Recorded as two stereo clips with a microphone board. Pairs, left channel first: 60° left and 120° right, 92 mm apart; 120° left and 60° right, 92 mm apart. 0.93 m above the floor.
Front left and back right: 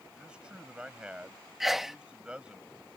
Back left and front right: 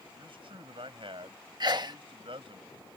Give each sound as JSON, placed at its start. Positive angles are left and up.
{"t": 0.1, "sound": "a man speaking", "azimuth_deg": -40}
{"t": 1.6, "sound": "a sneeze", "azimuth_deg": -35}